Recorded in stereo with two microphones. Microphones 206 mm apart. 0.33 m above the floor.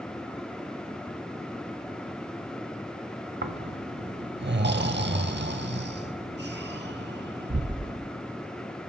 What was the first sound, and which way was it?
Snoring, 55° right (ahead or behind).